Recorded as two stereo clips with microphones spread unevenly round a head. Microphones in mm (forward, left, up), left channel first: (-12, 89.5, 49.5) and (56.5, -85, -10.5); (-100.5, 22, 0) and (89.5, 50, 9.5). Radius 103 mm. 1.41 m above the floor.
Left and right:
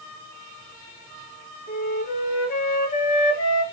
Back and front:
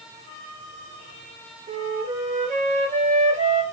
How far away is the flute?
About 0.8 m.